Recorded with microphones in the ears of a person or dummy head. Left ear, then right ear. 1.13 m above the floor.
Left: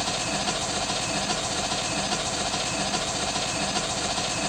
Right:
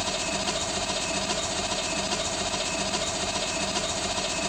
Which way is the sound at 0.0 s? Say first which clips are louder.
Left 1 dB; 5° left (ahead or behind).